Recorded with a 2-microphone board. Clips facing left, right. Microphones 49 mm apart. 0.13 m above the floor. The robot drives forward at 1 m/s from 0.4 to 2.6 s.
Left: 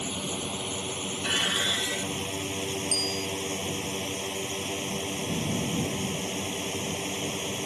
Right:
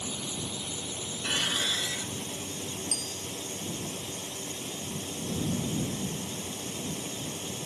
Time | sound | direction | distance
0.0 | a drone | 45° left (ahead or behind) | ?
1.2 | dishes clattering | 20° left (ahead or behind) | ?
2.9 | a bicycle bell | 65° left (ahead or behind) | ?